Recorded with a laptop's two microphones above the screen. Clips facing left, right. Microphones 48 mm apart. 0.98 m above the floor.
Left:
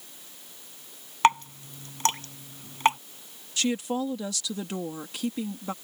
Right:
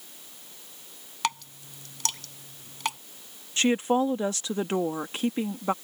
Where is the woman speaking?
40° right (ahead or behind).